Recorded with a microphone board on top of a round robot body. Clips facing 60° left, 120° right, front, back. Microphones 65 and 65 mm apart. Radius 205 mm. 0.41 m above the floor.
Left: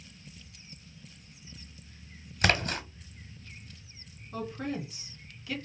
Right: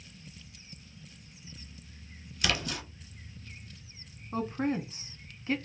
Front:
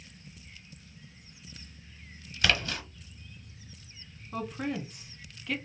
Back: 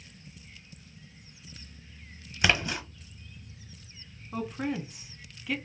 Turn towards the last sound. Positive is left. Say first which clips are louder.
# right 4 dB, back 1 dB
turn(degrees=-100)